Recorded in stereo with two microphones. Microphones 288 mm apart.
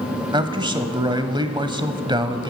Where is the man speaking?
15° right (ahead or behind), 1.0 m.